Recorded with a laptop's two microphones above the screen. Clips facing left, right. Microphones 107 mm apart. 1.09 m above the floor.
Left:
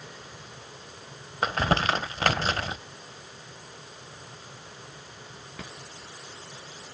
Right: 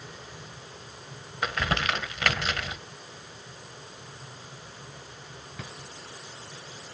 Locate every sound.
1.4 s crumpling: 35° left (ahead or behind), 1.0 m